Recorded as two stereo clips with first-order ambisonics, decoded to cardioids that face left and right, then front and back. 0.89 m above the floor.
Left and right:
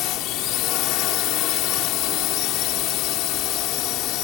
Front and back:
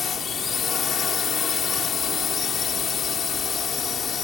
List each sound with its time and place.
0.0 s a drone: 65° left